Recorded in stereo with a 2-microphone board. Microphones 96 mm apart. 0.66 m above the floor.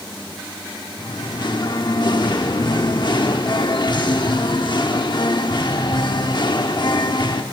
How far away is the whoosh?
No whoosh in this recording.